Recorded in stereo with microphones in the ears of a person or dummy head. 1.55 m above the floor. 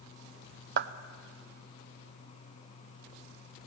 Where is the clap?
60° right (ahead or behind), 0.7 m.